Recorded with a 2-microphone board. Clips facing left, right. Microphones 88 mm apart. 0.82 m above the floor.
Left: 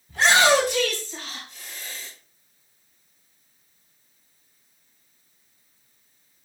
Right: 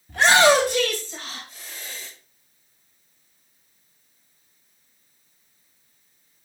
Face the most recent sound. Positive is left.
turn(degrees=-30)  # may be behind; listen again after turning